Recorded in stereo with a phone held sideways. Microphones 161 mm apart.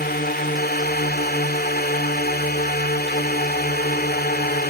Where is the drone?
75° left (ahead or behind).